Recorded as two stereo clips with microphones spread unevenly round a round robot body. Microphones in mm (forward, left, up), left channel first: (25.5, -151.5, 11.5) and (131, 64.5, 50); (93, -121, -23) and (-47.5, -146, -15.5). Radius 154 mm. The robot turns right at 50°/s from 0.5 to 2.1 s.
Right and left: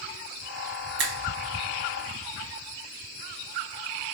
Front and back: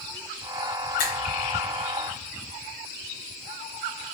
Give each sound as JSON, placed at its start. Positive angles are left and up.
{"t": 1.0, "sound": "a finger snap", "azimuth_deg": 20, "distance_m": 1.1}